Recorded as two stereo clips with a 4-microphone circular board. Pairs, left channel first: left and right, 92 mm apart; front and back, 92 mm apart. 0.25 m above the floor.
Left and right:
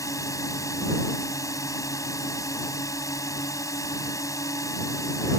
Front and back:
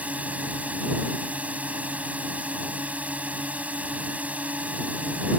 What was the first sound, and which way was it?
A drone, 115° left.